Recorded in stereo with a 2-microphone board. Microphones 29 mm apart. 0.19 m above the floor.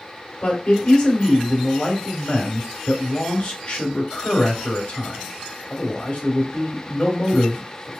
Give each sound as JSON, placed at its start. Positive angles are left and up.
{"t": 0.4, "sound": "a man speaking", "side_deg": 45, "distance_m": 2.5}